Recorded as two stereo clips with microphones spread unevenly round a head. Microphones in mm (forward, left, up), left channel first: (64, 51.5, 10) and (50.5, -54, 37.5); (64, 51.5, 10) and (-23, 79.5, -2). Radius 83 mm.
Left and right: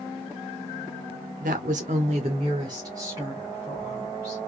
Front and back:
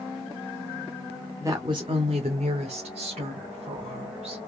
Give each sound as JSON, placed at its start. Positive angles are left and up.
{"t": 1.4, "sound": "a woman speaking", "azimuth_deg": -125, "distance_m": 0.8}